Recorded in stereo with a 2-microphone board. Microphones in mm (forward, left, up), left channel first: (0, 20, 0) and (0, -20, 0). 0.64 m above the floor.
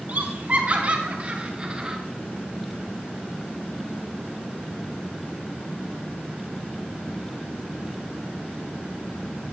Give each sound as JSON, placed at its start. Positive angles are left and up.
{"t": 0.1, "sound": "laughter", "side_deg": -45, "distance_m": 1.8}